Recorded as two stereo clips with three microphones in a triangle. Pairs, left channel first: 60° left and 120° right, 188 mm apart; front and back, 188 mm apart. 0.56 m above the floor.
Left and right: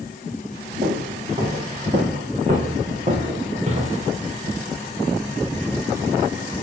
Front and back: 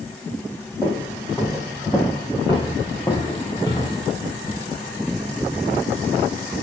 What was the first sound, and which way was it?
Footsteps, 70° right.